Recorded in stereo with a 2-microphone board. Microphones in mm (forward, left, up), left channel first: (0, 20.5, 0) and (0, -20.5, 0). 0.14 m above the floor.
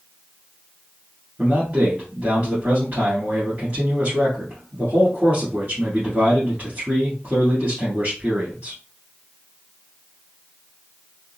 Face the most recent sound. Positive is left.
turn(degrees=-35)  # may be behind; listen again after turning